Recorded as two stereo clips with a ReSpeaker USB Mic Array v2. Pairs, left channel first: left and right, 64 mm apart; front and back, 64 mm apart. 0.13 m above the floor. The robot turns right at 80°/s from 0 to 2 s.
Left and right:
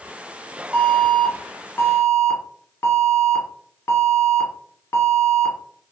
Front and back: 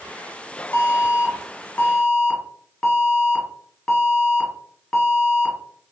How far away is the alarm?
About 1.3 m.